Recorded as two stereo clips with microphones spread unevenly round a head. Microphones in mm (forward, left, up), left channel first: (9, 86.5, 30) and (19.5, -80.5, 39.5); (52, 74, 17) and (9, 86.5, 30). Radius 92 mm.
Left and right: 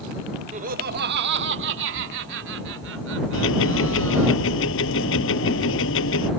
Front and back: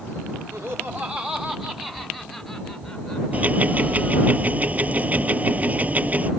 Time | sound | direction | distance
0.5 | laughter | 140° right | ?
3.3 | ticking | 110° left | ?